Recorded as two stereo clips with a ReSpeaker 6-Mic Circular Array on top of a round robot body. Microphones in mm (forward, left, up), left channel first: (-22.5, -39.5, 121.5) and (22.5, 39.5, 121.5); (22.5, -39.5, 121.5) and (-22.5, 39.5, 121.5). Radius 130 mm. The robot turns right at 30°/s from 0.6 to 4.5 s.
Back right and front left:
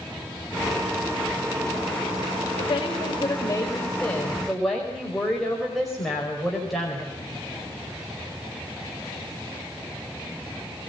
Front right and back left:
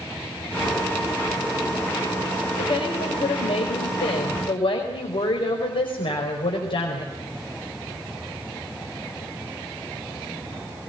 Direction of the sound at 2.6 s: 90° right.